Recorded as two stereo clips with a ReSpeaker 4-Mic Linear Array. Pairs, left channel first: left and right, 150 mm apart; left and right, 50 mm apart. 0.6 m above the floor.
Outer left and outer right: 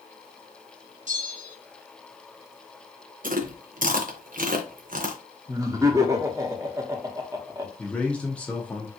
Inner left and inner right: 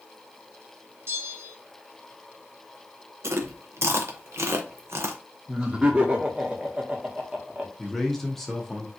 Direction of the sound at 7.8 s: 10° left (ahead or behind).